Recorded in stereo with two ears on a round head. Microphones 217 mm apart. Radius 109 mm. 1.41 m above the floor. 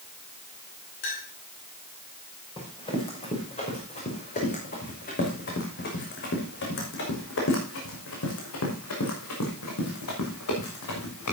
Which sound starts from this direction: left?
A clink, at 1.0 s.